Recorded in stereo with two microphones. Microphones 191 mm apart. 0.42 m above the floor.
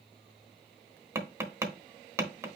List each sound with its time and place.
1.1 s tapping: 15° right (ahead or behind), 1.1 m